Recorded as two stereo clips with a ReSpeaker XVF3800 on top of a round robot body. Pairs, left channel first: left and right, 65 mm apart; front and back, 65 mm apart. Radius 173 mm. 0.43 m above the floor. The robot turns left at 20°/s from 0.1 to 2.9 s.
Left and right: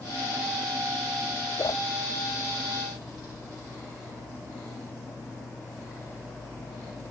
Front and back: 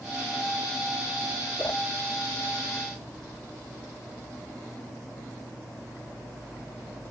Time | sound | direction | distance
1.6 | a whoosh | 65° left | 0.7 m